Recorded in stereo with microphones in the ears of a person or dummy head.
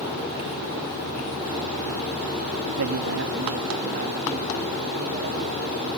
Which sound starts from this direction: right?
A man speaking, at 2.8 s.